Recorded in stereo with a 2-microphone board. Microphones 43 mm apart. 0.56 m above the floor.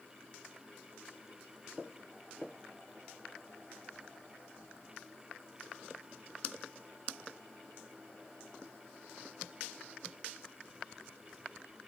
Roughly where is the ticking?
No ticking in this recording.